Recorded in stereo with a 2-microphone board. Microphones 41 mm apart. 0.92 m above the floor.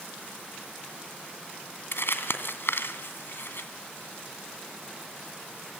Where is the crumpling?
70° left (ahead or behind), 2 m.